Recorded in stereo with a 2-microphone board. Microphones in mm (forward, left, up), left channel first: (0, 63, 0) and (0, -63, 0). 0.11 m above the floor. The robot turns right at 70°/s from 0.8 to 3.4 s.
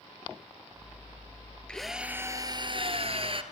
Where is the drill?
170° left, 1.8 m; by 3.4 s 70° right, 1.8 m.